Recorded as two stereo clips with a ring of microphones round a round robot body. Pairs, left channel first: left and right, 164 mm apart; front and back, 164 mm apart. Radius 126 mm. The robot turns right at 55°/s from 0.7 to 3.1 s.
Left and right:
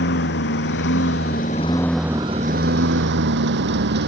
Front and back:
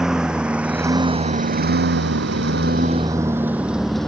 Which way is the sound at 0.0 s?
95° left.